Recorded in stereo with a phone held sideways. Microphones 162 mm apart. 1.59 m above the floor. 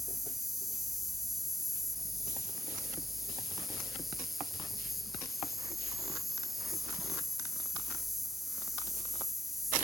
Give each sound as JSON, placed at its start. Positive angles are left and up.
{"t": 0.0, "sound": "an insect", "side_deg": 0}